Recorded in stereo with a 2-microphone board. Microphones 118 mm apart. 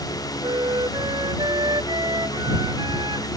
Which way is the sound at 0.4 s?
40° right (ahead or behind).